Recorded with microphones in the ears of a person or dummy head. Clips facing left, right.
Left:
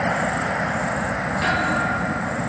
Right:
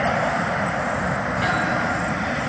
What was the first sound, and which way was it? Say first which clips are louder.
A thud: left 1 dB; centre (ahead or behind).